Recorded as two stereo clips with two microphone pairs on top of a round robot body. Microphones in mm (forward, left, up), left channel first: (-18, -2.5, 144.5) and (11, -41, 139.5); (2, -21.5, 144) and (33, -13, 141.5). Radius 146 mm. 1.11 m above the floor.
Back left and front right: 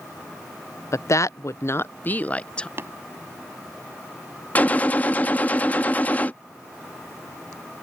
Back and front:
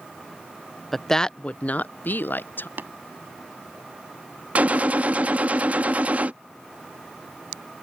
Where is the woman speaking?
110° left; by 2.7 s 160° right.